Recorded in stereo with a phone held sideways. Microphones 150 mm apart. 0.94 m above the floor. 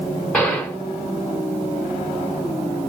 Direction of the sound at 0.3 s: 10° left (ahead or behind).